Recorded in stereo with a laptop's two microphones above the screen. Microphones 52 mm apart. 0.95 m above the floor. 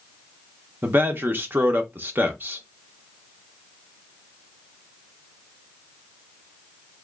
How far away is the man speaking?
About 0.8 m.